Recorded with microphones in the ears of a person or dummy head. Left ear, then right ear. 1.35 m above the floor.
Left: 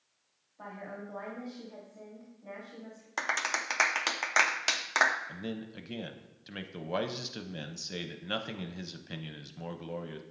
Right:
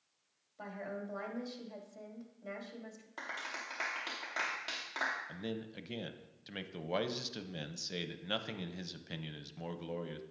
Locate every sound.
0.6 s a woman speaking: 85° right, 2.5 m
3.2 s a clap: 65° left (ahead or behind), 0.6 m
5.3 s a man speaking: 15° right (ahead or behind), 0.5 m